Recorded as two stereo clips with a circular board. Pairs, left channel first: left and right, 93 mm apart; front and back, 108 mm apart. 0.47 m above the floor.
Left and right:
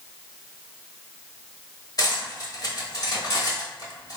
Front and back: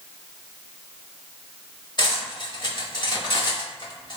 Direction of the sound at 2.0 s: 45° left.